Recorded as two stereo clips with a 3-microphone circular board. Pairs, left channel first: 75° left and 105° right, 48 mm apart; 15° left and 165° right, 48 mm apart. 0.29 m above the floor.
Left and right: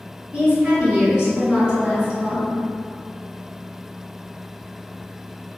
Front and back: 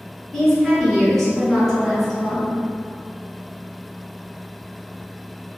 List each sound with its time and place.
0.3 s a woman speaking: 55° right, 1.6 m